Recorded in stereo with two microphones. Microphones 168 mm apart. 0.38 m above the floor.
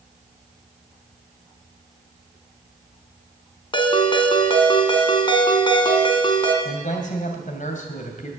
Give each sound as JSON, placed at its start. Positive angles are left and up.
{"t": 3.7, "sound": "a ringtone", "side_deg": 30, "distance_m": 1.8}
{"t": 6.7, "sound": "a man speaking", "side_deg": 55, "distance_m": 2.5}